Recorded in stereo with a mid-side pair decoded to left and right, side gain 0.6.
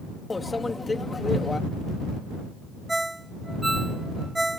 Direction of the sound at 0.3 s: 15° left.